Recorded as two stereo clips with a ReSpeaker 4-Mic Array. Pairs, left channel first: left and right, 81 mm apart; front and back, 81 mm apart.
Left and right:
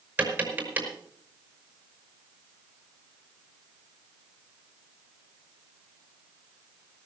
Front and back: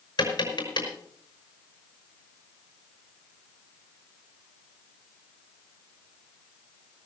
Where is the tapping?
25° right, 5 m.